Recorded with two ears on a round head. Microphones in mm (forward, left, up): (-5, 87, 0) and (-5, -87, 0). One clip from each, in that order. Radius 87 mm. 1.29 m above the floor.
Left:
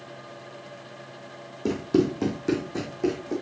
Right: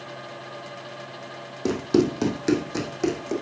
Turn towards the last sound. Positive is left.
turn(degrees=-65)  # may be behind; listen again after turning